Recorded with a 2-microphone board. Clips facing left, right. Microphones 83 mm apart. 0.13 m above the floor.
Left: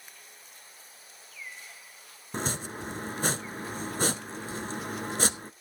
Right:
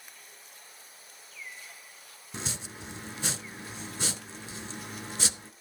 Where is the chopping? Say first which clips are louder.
Left 7 dB; 45° left (ahead or behind), 0.7 m.